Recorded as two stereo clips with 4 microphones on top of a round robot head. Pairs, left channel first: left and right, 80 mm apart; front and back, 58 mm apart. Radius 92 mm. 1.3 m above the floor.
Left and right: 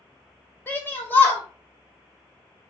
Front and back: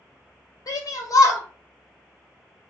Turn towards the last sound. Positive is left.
turn(degrees=20)